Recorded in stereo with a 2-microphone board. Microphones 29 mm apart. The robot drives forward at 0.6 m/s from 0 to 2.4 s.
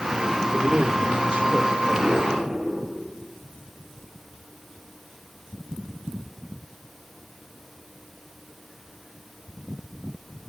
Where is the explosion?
10° right (ahead or behind), 5 m.